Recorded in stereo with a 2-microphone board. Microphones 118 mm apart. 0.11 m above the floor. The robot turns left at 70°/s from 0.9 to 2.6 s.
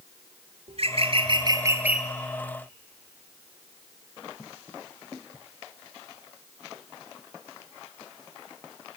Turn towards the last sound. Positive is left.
turn(degrees=145)